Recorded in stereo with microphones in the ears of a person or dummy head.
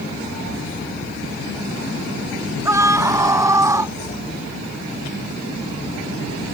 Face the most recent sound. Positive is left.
turn(degrees=-20)  # may be behind; listen again after turning